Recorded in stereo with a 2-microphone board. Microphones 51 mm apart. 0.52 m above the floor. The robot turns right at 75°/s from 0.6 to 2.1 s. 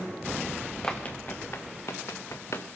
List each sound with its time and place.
0.8 s running footsteps: 15° left (ahead or behind), 1.9 m; by 2.7 s 75° left (ahead or behind), 2 m